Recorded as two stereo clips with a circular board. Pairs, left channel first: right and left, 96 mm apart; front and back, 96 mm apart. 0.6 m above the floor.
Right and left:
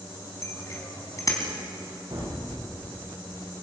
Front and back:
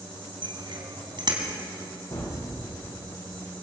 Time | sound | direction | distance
0.4 | a bicycle bell | 150° right | 4 m
2.1 | a gunshot | 50° left | 8 m